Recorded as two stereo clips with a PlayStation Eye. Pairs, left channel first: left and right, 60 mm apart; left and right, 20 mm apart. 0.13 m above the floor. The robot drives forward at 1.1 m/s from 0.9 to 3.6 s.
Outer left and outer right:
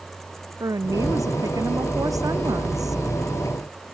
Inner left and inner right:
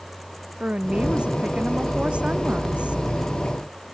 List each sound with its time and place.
0.6 s a woman speaking: 70° right (ahead or behind); by 3.0 s 80° right